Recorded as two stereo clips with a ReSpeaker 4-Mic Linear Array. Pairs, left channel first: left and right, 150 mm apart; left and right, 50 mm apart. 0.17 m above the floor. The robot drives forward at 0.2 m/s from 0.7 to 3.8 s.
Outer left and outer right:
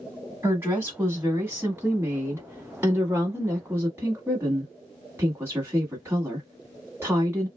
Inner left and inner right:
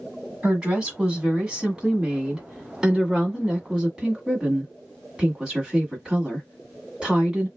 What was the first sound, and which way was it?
A woman speaking, 15° right (ahead or behind).